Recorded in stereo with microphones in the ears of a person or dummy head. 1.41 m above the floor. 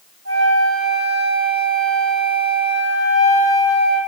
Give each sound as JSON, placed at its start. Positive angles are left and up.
{"t": 0.2, "sound": "a flute", "side_deg": -65, "distance_m": 1.9}